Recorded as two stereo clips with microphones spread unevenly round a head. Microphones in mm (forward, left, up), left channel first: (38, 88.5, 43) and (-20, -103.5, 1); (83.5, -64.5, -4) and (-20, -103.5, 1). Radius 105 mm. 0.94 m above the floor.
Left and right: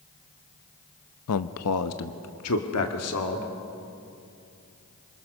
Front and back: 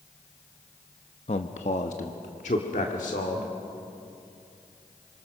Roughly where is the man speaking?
Ahead left.